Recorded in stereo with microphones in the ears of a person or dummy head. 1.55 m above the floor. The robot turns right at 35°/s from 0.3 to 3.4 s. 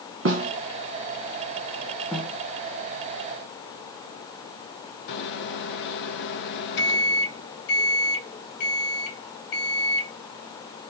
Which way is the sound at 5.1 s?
60° left (ahead or behind).